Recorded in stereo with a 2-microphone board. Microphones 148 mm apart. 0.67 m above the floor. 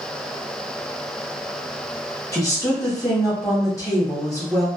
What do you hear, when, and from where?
2.3 s a woman speaking: 20° left (ahead or behind), 1.0 m